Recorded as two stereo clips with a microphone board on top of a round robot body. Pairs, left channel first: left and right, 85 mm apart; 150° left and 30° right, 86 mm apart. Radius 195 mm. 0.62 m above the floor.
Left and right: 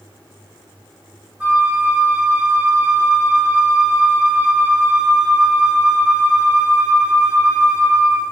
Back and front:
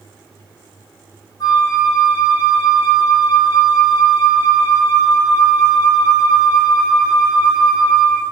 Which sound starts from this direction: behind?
A flute, at 1.4 s.